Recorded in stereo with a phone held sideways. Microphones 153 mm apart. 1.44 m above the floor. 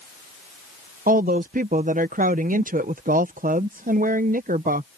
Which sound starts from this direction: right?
A woman speaking, at 1.1 s.